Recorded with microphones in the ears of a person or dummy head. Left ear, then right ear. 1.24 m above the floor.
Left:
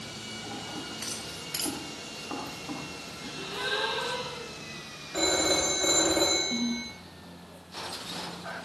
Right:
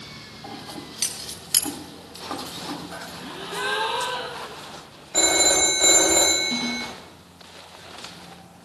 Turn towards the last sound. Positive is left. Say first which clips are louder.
# right 5 dB
turn(degrees=-50)  # may be behind; listen again after turning